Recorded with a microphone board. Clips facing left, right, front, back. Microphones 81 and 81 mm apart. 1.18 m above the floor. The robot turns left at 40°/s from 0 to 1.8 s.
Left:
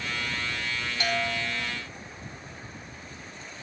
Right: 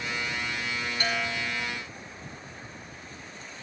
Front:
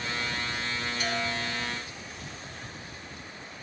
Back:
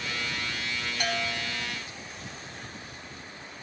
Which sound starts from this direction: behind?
A bell, at 1.0 s.